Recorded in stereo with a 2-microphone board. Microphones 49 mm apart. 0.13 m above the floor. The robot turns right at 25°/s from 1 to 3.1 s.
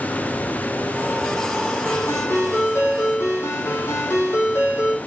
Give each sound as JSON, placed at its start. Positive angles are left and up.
{"t": 1.9, "sound": "a ringtone", "azimuth_deg": 50, "distance_m": 4.5}